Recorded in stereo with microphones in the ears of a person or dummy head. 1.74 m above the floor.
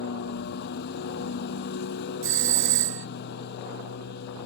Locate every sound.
0.0 s a lawn mower: 60° left (ahead or behind)
2.2 s a doorbell: 55° right (ahead or behind)